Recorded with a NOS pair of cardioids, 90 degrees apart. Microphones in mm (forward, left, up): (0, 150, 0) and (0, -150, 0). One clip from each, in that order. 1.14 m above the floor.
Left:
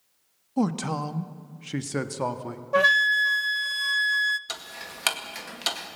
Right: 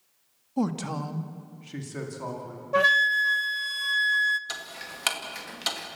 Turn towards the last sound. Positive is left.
turn(degrees=15)